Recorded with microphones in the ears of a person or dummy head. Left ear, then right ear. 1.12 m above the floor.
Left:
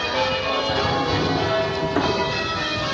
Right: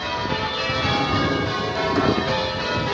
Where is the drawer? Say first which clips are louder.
Even; 5° left (ahead or behind), 0.8 m.